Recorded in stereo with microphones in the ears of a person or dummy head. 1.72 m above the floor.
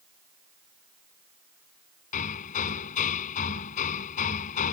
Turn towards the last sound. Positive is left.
turn(degrees=40)  # may be behind; listen again after turning